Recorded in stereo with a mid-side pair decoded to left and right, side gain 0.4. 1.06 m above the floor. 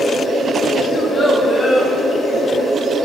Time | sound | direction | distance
0.9 | a child speaking | 35° left | 1.9 m